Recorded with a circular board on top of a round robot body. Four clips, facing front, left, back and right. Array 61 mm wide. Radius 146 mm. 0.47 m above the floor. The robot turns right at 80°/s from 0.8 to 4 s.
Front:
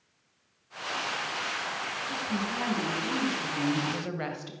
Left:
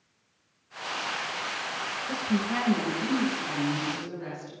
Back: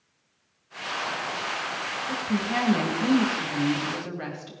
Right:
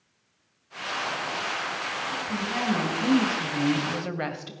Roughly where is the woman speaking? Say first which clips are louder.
Left 5 dB, back 6 dB; behind left.